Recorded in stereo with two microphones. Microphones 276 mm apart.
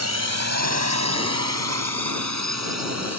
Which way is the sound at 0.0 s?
70° right (ahead or behind).